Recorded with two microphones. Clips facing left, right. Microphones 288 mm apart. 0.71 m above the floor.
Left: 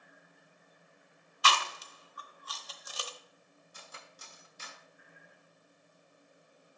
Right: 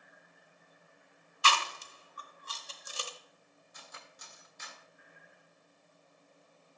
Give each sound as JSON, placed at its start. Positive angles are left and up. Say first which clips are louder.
{"t": 1.4, "sound": "chewing", "louder": "left 1 dB", "side_deg": -30, "distance_m": 0.7}
{"t": 3.7, "sound": "cutlery clinking", "louder": "left 1 dB", "side_deg": 35, "distance_m": 1.2}